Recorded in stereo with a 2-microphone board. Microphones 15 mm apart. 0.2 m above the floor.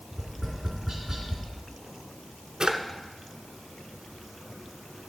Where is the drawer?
60° right (ahead or behind), 0.7 m.